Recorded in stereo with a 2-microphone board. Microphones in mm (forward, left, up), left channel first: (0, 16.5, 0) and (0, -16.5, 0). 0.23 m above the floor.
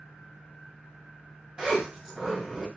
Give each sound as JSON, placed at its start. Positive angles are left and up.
{"t": 1.6, "sound": "a zipper", "side_deg": -25, "distance_m": 1.7}